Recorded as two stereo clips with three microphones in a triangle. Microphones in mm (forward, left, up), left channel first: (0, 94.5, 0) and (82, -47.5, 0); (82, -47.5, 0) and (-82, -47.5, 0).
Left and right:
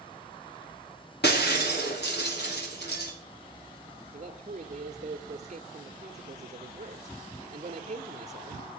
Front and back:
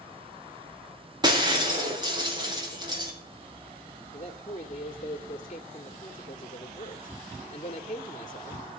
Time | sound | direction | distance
1.2 | breaking glass | 115° left | 4.5 m
4.1 | a man speaking | 30° right | 1.6 m